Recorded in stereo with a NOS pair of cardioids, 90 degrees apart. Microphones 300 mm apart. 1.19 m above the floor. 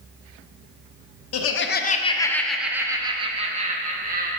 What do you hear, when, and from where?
1.3 s laughter: 55° left, 0.7 m; by 4.3 s 30° right, 1.8 m